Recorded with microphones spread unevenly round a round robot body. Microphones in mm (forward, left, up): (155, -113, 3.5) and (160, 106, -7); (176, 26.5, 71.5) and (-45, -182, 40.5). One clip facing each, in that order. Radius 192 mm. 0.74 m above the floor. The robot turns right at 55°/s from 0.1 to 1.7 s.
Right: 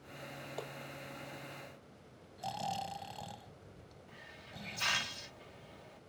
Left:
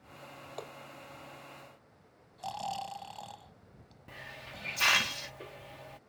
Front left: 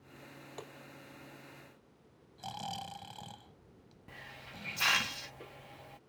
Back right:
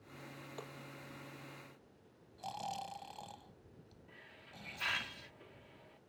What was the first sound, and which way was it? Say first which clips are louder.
Tapping: left 1 dB, front left 2 dB; 5° right.